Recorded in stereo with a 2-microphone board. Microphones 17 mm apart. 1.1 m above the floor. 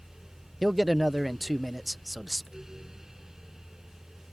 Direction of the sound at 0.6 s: 5° right (ahead or behind).